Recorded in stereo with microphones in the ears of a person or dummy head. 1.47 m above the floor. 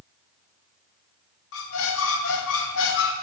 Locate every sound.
1.5 s a squeak: 65° left (ahead or behind), 0.7 m